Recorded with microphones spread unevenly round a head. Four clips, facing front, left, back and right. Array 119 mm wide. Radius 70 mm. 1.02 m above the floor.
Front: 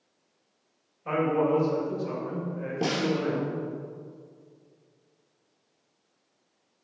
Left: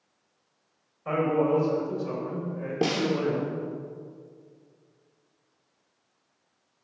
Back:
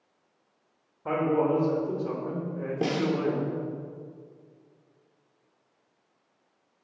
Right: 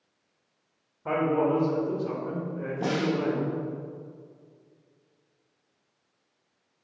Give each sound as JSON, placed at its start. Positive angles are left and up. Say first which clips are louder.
{"t": 1.1, "sound": "a man speaking", "louder": "even, even", "azimuth_deg": -160, "distance_m": 4.0}
{"t": 2.8, "sound": "a snare drum", "louder": "left 1 dB, even", "azimuth_deg": 120, "distance_m": 3.0}